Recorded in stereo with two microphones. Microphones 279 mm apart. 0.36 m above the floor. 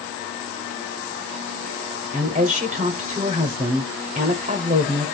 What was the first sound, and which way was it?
A woman speaking, 25° right (ahead or behind).